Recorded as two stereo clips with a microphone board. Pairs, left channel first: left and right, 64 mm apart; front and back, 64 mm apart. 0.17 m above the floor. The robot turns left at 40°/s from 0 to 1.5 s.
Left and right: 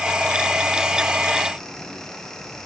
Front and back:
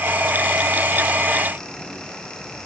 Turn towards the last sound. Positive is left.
No sound to turn to.